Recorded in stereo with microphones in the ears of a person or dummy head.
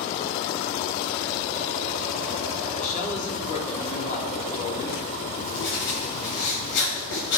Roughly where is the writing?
Left.